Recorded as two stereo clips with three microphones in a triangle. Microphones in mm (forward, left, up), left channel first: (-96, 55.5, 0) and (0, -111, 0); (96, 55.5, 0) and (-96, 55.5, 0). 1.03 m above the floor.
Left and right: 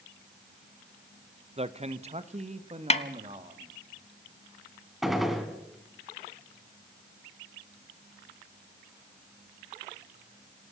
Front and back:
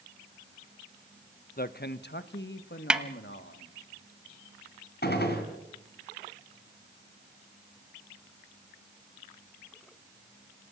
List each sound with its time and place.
1.6 s a man speaking: 15° right, 0.7 m; by 3.7 s 5° right, 2 m
2.9 s a snare drum: 95° left, 1.0 m
5.0 s a gunshot: 30° left, 3 m